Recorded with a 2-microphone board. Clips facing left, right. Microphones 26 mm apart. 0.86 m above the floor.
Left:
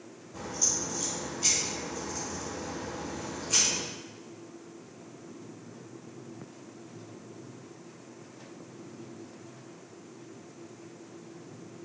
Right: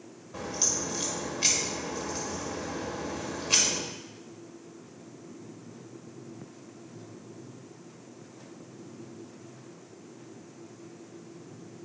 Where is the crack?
65° right (ahead or behind), 1.6 m.